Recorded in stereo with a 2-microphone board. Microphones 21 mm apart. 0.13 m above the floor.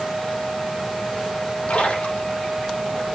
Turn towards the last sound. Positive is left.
turn(degrees=60)  # may be behind; listen again after turning